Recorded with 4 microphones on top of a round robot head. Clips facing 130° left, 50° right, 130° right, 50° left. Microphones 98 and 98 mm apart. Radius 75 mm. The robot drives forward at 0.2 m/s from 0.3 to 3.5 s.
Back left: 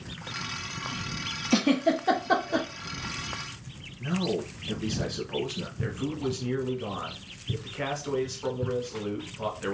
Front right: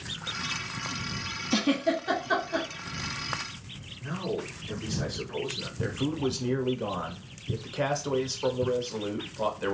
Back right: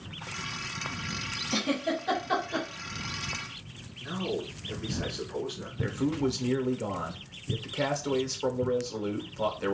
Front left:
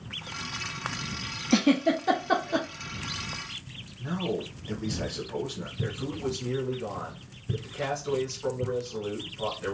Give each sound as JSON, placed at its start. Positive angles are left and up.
{"t": 1.5, "sound": "a giggle", "azimuth_deg": 80, "distance_m": 0.8}
{"t": 4.0, "sound": "a man speaking", "azimuth_deg": 105, "distance_m": 1.5}
{"t": 5.8, "sound": "a man speaking", "azimuth_deg": -110, "distance_m": 1.2}